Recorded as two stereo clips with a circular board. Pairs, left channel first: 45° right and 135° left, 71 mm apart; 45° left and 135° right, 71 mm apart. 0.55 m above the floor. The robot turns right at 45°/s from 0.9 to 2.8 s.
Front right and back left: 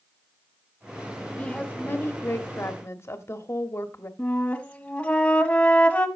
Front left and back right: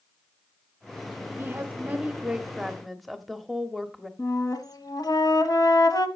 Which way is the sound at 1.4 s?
110° right.